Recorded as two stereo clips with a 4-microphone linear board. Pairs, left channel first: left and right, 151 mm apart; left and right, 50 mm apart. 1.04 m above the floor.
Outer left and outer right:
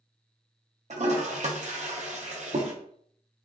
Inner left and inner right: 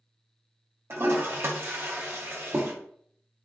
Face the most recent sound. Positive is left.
turn(degrees=-50)  # may be behind; listen again after turning